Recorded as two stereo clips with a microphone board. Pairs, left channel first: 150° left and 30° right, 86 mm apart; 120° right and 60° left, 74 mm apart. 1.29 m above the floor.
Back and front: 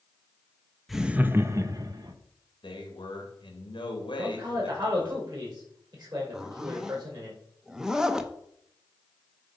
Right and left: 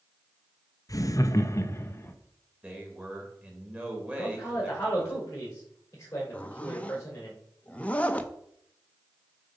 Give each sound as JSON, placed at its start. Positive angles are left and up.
{"t": 0.9, "sound": "laughter", "azimuth_deg": -120, "distance_m": 0.6}
{"t": 2.6, "sound": "a man speaking", "azimuth_deg": 130, "distance_m": 2.0}
{"t": 4.2, "sound": "a man speaking", "azimuth_deg": -65, "distance_m": 4.0}
{"t": 6.3, "sound": "a zipper", "azimuth_deg": -100, "distance_m": 0.6}